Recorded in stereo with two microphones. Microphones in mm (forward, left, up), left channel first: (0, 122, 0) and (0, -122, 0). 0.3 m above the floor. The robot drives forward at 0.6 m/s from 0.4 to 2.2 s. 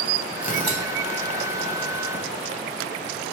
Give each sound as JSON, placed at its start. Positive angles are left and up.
{"t": 0.4, "sound": "tearing paper", "side_deg": 35, "distance_m": 1.4}